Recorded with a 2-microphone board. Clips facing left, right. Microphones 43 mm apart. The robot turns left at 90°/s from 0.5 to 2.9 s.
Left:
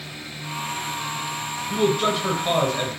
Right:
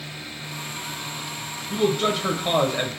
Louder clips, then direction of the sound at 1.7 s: Left 1 dB; 15° left (ahead or behind).